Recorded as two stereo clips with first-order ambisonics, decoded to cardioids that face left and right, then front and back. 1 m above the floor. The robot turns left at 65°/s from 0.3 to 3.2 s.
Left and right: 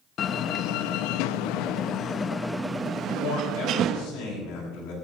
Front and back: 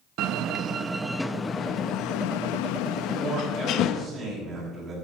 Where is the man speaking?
115° left, 7.5 m; by 4.9 s 110° left, 7.5 m.